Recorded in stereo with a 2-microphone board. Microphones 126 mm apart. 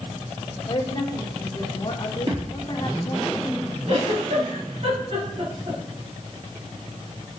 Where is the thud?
45° right (ahead or behind), 4 m.